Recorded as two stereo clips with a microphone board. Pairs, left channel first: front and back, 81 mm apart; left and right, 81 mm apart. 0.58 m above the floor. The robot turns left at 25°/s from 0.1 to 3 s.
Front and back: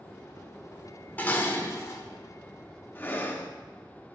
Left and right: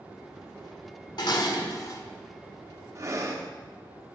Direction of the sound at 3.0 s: 55° right.